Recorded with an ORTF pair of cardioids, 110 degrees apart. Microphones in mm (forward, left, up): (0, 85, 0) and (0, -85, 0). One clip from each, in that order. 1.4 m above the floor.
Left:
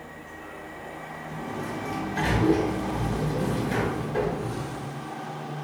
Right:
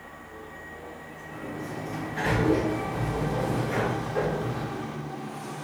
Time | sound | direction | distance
1.3 | a sliding door | 45° left | 1.5 m